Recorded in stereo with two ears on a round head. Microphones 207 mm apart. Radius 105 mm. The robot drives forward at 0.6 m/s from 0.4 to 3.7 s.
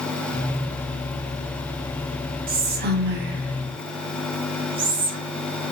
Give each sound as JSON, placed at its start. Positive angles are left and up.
{"t": 2.5, "sound": "whispering", "side_deg": -40, "distance_m": 1.0}